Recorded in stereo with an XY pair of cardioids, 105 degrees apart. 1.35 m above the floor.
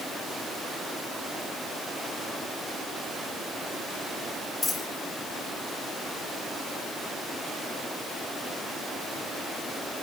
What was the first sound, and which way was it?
A dropped coin, 30° left.